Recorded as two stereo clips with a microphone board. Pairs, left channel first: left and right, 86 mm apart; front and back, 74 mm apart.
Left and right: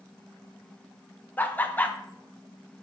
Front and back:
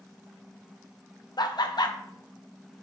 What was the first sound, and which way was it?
Laughter, 20° left.